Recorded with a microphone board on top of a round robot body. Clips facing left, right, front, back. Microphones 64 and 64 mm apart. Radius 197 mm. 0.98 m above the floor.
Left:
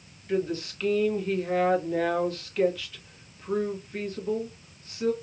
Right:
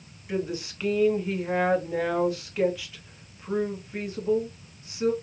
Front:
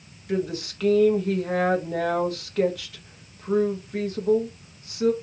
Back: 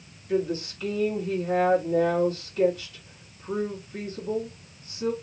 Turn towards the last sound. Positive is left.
turn(degrees=-15)